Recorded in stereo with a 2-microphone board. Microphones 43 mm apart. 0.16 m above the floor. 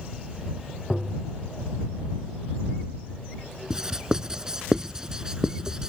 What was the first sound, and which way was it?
Tapping, 15° left (ahead or behind).